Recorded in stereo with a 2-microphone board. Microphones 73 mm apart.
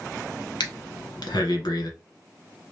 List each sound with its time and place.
0.6 s breathing: 85° left, 1.0 m